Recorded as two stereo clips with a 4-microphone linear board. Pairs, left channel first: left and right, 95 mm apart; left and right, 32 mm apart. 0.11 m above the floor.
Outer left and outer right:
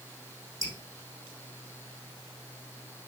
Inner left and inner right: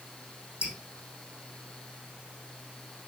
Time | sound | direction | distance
0.6 | dripping | 35° right (ahead or behind) | 4 m